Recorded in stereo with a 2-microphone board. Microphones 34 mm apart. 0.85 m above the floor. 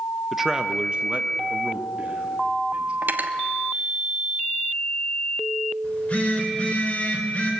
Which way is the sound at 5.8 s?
50° left (ahead or behind).